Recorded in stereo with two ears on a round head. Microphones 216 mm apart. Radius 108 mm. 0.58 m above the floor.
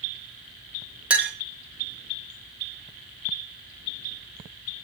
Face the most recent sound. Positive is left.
turn(degrees=-5)  # may be behind; listen again after turning